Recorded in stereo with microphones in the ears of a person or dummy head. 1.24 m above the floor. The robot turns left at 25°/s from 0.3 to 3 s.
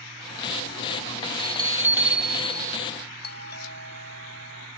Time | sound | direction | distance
1.4 | a bell | 155° right | ?
3.2 | a doorbell | 45° left (ahead or behind) | ?